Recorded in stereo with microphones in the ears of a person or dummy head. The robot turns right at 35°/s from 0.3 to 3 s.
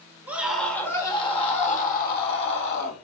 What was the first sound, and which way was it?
A scream, 10° right.